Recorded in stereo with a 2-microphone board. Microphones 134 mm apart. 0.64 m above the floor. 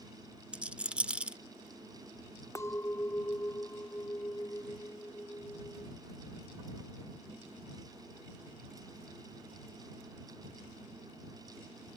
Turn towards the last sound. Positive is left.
turn(degrees=20)  # may be behind; listen again after turning